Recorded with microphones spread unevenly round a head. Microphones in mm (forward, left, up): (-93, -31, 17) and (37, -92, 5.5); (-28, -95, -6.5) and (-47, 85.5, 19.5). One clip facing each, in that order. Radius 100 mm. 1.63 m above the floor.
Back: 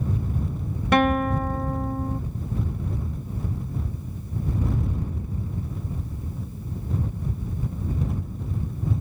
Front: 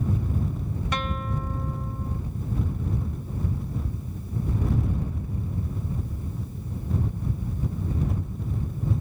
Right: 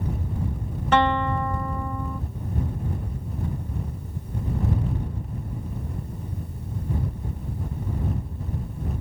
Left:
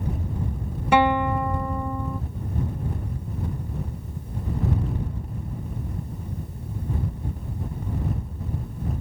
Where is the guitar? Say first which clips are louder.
Back 13 dB, left 2 dB; 170° left.